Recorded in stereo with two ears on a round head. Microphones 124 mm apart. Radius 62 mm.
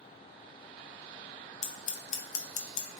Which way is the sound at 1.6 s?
55° left (ahead or behind).